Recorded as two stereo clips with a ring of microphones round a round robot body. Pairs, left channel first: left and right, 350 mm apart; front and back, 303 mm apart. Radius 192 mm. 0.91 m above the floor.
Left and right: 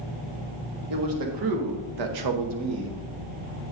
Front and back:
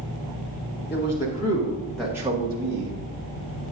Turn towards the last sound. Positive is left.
turn(degrees=-145)